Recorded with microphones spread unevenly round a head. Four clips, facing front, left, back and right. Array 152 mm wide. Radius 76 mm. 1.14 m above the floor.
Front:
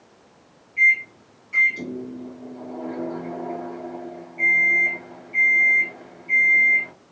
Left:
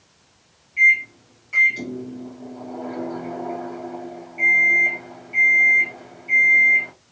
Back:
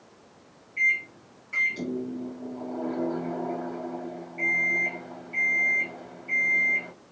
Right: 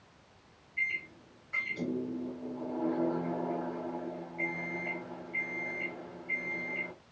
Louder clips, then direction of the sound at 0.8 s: Left 18 dB, front 7 dB; 130° left.